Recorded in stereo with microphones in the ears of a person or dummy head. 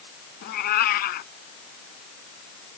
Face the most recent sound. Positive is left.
turn(degrees=50)  # may be behind; listen again after turning